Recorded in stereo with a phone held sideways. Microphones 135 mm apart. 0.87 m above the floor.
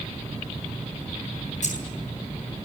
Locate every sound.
1.6 s keys jangling: 60° left (ahead or behind), 6.5 m